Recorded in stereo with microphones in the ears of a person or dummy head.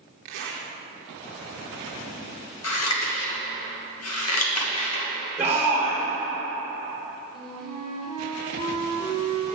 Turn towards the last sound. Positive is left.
turn(degrees=0)  # may be behind; listen again after turning